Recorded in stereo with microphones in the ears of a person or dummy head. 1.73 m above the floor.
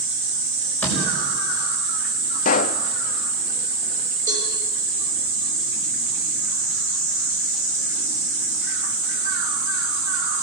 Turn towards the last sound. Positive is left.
turn(degrees=-30)  # may be behind; listen again after turning